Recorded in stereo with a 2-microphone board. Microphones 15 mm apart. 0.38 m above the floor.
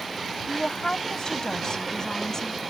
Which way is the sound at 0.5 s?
55° left (ahead or behind).